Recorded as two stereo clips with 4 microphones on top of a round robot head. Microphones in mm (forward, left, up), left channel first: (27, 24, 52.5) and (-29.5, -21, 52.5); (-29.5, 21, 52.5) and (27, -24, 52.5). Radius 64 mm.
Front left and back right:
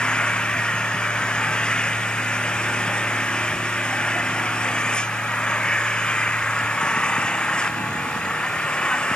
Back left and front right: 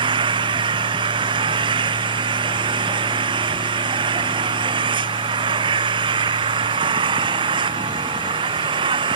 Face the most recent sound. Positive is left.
turn(degrees=-40)